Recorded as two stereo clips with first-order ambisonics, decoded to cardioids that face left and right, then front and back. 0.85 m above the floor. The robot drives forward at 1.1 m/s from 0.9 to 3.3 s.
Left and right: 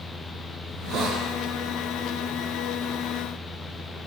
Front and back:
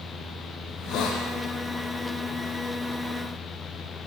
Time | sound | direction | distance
0.7 | a hiss | 45° right | 5.5 m